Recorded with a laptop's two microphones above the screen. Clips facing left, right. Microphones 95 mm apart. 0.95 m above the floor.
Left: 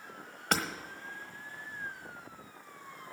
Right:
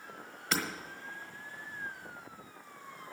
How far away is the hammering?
About 1.2 m.